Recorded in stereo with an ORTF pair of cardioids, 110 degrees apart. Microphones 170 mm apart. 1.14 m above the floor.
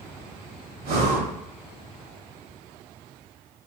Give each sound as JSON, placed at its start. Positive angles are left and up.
{"t": 0.8, "sound": "breathing", "azimuth_deg": -65, "distance_m": 1.1}